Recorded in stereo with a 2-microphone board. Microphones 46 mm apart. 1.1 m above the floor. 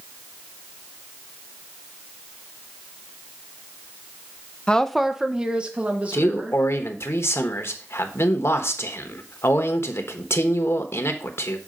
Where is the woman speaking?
20° left (ahead or behind), 0.6 m; by 6.6 s 35° right (ahead or behind), 2 m.